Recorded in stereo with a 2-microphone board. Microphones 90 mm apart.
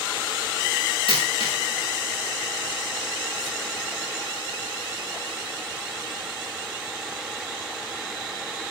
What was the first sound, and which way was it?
A dropped coin, 75° left (ahead or behind).